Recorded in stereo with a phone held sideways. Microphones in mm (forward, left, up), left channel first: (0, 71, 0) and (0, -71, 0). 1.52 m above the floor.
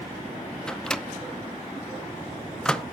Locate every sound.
0.7 s a microwave: 5° left (ahead or behind), 0.6 m